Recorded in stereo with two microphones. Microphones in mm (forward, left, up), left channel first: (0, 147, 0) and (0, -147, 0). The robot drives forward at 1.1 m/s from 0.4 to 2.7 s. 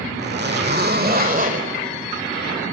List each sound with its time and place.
0.2 s a zipper: 35° right (ahead or behind), 1.7 m; by 1.7 s 25° right (ahead or behind), 2 m